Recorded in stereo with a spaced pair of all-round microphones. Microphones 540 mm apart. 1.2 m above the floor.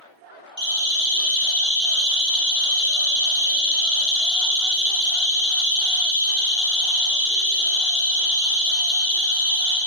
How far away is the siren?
About 5.5 m.